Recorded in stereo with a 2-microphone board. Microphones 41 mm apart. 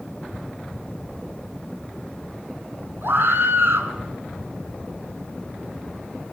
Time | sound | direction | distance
3.0 | a scream | 65° right (ahead or behind) | 4 m